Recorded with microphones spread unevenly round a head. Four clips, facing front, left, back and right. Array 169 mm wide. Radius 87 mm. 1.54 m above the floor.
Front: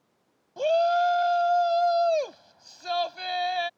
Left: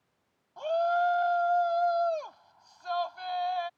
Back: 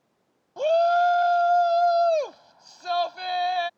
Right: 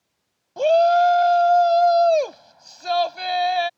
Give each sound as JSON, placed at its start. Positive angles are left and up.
{"t": 0.6, "sound": "a shout", "azimuth_deg": -120}